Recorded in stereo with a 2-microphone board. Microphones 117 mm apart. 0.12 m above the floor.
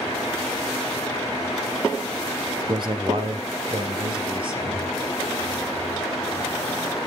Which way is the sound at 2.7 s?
40° right (ahead or behind).